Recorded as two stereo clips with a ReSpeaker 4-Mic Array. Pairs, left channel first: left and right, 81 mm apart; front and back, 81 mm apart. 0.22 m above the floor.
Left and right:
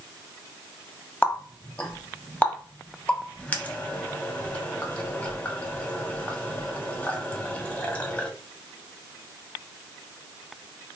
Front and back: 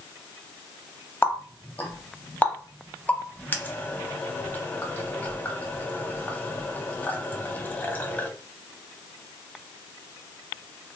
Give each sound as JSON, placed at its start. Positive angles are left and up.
{"t": 1.2, "sound": "a running tap", "azimuth_deg": 40, "distance_m": 0.8}